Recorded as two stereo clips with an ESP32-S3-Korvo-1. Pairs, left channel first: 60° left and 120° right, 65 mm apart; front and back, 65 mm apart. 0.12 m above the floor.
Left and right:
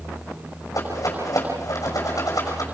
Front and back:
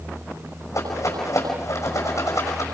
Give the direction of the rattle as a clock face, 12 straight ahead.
11 o'clock.